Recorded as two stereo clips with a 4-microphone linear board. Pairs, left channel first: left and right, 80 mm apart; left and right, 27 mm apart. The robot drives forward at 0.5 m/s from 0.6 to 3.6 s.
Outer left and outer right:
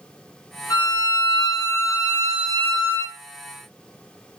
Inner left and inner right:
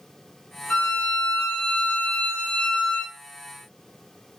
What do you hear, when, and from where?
0.7 s a violin: 45° left (ahead or behind), 1.1 m; by 3.2 s 30° left (ahead or behind), 1.5 m